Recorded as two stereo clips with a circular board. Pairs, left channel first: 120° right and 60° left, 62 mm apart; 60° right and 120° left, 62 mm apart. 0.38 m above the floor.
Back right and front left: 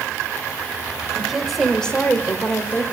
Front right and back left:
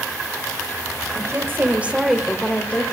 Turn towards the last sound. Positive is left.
turn(degrees=-105)